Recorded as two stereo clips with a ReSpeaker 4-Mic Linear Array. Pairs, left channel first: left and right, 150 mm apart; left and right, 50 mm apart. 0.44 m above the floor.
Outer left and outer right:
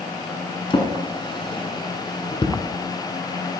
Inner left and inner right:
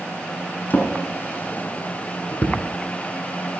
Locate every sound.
0.7 s a drawer: 35° left (ahead or behind), 1.4 m